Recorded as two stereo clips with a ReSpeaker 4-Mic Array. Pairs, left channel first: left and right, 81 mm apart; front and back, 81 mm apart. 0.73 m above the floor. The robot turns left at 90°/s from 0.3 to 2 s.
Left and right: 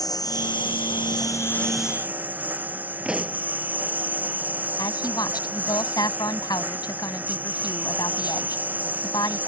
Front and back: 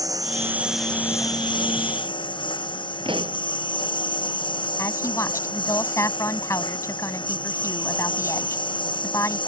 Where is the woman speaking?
55° left.